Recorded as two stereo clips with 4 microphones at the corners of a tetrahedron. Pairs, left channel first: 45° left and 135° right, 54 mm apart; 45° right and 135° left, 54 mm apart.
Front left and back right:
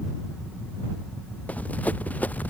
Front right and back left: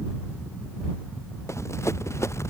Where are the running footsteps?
15° right.